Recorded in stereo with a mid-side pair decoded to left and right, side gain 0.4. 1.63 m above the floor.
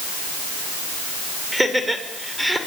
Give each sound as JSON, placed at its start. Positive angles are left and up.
{"t": 1.5, "sound": "laughter", "azimuth_deg": -10, "distance_m": 7.0}